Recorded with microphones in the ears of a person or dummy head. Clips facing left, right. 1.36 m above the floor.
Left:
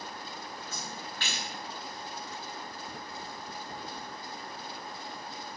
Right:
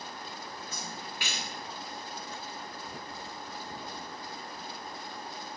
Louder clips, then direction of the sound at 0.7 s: Even; 5° right (ahead or behind).